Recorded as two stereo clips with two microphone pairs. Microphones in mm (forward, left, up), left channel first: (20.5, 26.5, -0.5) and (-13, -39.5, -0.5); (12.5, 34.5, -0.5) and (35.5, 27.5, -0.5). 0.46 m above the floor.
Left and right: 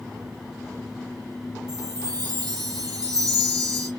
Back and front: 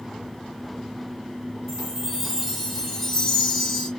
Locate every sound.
1.7 s a chime: 115° right, 1.3 m